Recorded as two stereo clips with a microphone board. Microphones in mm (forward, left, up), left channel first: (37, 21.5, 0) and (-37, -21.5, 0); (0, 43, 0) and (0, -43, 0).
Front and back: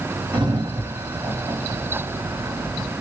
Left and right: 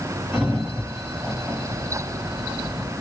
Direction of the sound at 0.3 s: 175° right.